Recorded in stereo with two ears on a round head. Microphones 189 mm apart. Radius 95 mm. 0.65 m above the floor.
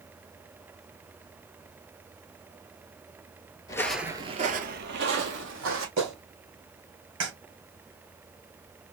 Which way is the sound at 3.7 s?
20° left (ahead or behind).